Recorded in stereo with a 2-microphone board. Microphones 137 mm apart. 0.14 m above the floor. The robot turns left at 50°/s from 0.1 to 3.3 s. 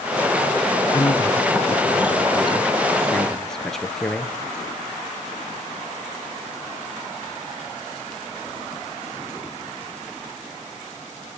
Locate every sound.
0.9 s a man speaking: 125° left, 2.5 m; by 4.3 s 5° left, 2.5 m